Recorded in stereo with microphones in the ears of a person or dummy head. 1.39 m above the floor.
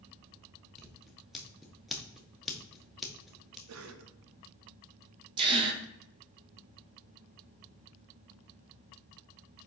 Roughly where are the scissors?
Centre.